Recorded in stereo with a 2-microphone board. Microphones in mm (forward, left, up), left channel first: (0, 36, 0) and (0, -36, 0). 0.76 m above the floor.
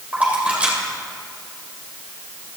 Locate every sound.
0.1 s a splash: 20° right (ahead or behind), 2.5 m